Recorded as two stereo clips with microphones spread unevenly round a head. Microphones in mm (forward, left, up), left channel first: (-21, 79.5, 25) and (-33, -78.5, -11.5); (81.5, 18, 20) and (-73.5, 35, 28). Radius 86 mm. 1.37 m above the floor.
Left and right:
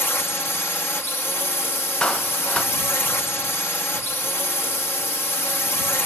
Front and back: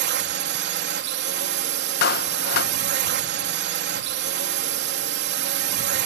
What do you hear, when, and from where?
0.0 s a drone: 165° left
2.0 s a clap: 10° left